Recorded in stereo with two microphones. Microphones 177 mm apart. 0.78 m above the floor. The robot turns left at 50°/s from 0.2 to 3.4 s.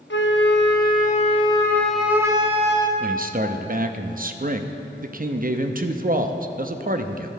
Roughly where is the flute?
Left.